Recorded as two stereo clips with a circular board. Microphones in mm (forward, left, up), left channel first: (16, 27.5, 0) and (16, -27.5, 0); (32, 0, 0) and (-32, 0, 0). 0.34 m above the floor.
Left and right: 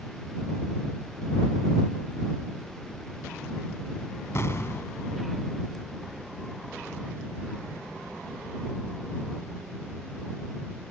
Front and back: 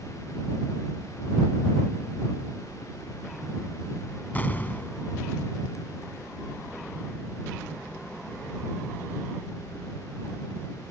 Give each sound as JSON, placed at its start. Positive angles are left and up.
{"t": 4.3, "sound": "an explosion", "azimuth_deg": 60}